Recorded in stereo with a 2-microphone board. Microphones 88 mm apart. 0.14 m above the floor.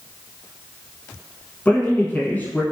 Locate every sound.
1.6 s a man speaking: 20° left (ahead or behind), 1.2 m